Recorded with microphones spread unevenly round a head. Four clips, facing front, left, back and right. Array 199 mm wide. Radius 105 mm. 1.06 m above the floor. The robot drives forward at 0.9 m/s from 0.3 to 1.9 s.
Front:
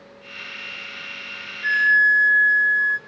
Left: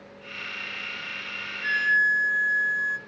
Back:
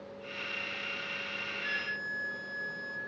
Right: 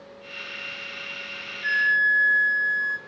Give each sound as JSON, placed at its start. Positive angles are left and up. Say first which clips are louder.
{"t": 1.6, "sound": "a flute", "louder": "right 1 dB, front 22 dB", "azimuth_deg": -5, "distance_m": 2.5}